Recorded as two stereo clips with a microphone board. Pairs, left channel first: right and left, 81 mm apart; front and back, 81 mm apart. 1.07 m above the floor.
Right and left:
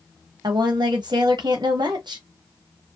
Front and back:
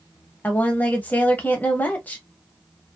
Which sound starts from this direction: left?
A woman speaking, at 0.4 s.